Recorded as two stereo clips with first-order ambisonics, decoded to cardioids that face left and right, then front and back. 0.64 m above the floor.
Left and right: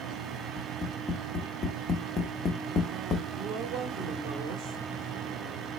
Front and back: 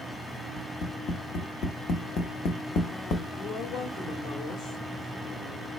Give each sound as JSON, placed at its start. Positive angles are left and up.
{"t": 0.6, "sound": "tapping", "azimuth_deg": 35, "distance_m": 0.7}
{"t": 3.4, "sound": "a woman speaking", "azimuth_deg": -35, "distance_m": 1.9}